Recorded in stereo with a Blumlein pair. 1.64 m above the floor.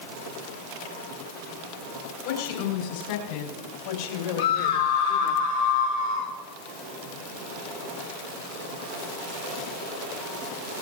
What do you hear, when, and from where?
2.2 s a woman speaking: 50° left, 6 m; by 5.4 s 55° left, 3 m
4.4 s a scream: 70° left, 3.5 m